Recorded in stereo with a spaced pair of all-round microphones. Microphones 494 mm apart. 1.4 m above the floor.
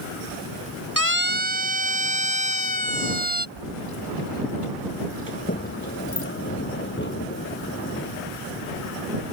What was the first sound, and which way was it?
A siren, 35° left (ahead or behind).